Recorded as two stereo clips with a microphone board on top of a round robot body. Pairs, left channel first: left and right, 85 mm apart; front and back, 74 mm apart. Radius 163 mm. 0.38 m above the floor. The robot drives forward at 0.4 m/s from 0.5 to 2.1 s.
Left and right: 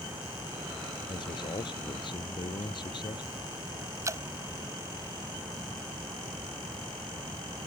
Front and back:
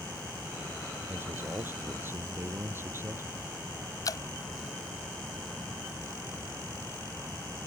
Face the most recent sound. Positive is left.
turn(degrees=-35)